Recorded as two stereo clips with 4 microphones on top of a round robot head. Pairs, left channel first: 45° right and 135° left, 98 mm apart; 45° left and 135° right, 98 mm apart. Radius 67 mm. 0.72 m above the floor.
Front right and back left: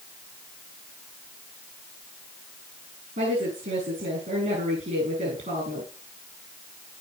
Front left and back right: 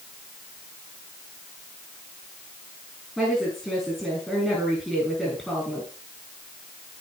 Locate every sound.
3.2 s a woman speaking: 130° left, 6.5 m